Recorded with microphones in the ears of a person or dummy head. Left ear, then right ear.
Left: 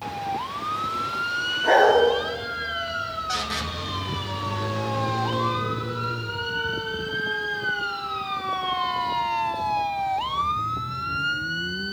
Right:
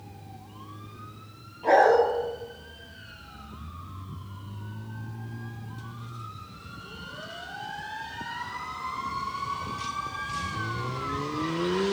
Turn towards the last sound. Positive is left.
turn(degrees=-5)  # may be behind; listen again after turning